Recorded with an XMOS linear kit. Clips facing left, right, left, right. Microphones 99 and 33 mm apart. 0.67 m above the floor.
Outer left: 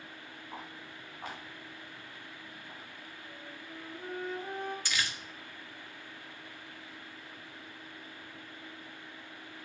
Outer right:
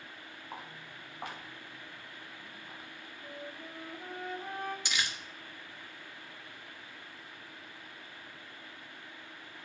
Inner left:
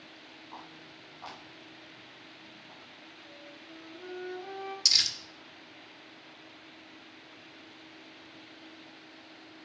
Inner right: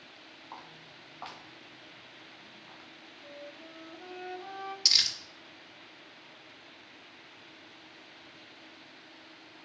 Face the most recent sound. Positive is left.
turn(degrees=-20)  # may be behind; listen again after turning